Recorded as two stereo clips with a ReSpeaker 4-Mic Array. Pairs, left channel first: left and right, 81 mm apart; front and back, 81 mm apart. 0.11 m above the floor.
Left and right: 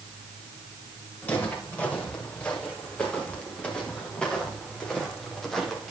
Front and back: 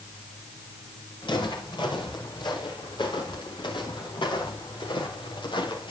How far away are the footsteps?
About 9.5 m.